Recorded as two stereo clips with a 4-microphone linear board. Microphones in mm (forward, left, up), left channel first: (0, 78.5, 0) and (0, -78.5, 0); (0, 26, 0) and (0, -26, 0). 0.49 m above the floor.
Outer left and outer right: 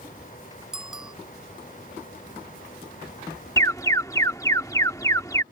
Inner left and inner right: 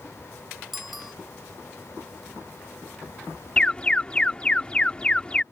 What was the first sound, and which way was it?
A bicycle bell, 5° right (ahead or behind).